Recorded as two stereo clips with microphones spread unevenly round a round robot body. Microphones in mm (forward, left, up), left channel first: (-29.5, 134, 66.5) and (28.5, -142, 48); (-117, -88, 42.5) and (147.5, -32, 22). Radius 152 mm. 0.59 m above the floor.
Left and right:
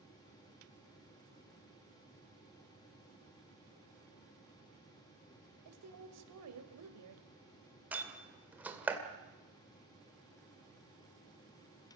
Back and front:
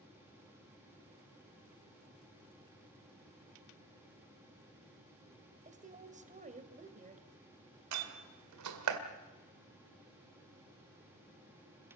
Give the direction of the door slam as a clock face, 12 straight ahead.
12 o'clock.